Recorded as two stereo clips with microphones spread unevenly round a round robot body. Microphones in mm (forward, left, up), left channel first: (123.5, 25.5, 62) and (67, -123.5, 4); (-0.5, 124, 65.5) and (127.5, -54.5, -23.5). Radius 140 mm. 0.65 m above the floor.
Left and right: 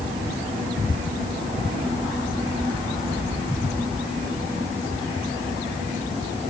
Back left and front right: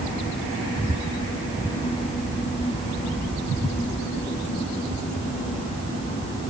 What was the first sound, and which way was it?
Only background noise.